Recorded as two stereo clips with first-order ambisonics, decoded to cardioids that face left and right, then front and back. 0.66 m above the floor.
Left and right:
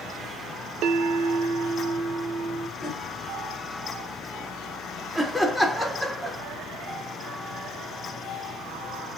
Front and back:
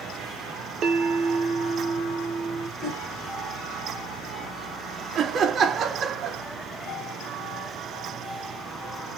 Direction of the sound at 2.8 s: 140° left.